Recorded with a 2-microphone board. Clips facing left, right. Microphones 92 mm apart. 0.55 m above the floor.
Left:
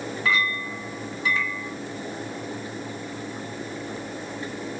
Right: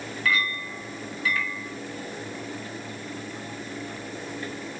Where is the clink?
25° left (ahead or behind), 2.5 m.